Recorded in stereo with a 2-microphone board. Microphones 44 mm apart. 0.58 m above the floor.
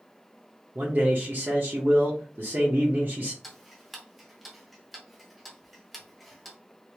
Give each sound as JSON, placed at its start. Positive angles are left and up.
{"t": 0.8, "sound": "a man speaking", "side_deg": -50, "distance_m": 0.9}
{"t": 3.4, "sound": "ticking", "side_deg": -5, "distance_m": 0.8}